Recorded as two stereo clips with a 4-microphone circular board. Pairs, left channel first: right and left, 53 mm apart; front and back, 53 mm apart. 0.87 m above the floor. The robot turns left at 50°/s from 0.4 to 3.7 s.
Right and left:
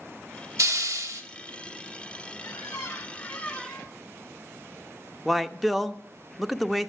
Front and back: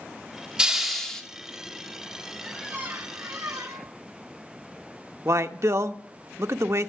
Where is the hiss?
105° left, 1.2 m; by 1.2 s 75° left, 1.2 m.